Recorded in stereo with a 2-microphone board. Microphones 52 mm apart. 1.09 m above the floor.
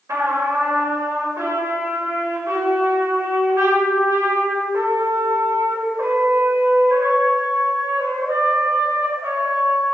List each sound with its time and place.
0.1 s a trumpet: 75° right (ahead or behind), 2.0 m